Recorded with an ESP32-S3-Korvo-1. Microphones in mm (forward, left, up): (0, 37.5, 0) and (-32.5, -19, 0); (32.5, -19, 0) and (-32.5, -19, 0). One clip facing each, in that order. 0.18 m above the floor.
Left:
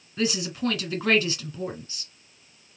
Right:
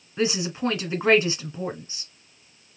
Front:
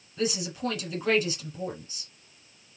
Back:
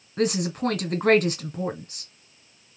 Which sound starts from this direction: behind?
A woman speaking, at 0.2 s.